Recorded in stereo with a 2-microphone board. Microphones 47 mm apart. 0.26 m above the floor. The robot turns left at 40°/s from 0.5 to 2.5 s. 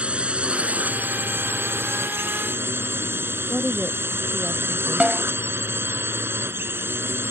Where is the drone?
30° right; by 7.3 s 110° right.